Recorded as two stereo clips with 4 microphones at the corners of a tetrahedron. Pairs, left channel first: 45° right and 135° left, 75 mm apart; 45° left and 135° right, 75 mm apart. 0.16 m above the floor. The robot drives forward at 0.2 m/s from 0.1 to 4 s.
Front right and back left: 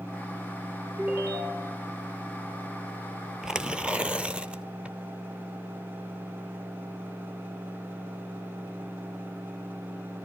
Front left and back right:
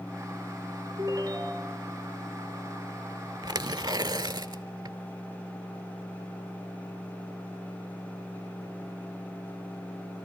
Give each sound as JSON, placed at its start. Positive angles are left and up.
{"t": 1.0, "sound": "a ringtone", "azimuth_deg": -170, "distance_m": 2.5}
{"t": 3.4, "sound": "tearing paper", "azimuth_deg": -145, "distance_m": 0.5}